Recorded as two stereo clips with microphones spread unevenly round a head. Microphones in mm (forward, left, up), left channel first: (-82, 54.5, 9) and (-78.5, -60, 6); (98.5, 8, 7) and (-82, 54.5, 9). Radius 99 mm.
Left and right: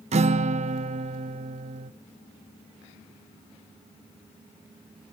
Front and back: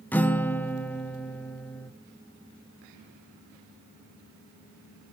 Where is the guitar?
95° right, 0.6 m.